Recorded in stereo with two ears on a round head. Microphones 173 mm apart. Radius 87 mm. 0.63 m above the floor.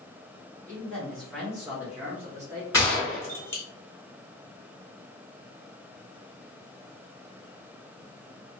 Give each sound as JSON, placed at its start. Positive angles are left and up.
{"t": 0.7, "sound": "a man speaking", "side_deg": 5, "distance_m": 1.9}
{"t": 2.7, "sound": "a gunshot", "side_deg": 15, "distance_m": 1.3}